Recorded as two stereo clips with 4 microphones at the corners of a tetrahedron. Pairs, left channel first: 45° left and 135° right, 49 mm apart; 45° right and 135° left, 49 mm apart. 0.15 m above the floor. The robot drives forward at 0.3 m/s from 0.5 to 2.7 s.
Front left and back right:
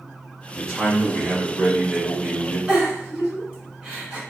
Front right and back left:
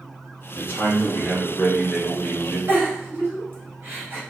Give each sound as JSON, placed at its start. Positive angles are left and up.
{"t": 0.5, "sound": "a man speaking", "azimuth_deg": -35, "distance_m": 1.5}
{"t": 2.7, "sound": "a giggle", "azimuth_deg": 160, "distance_m": 1.4}